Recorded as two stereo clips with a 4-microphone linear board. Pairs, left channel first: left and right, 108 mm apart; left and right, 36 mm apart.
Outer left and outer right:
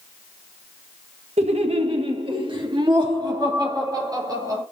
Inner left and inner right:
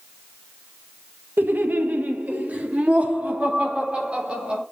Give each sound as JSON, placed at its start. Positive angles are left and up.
{"t": 1.4, "sound": "laughter", "side_deg": -75, "distance_m": 1.6}